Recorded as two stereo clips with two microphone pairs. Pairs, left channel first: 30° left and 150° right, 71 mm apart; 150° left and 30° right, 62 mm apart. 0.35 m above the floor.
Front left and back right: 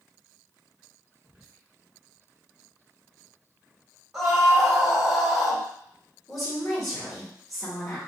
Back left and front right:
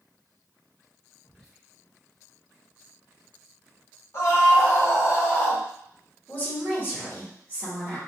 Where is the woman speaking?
120° left, 1.4 m.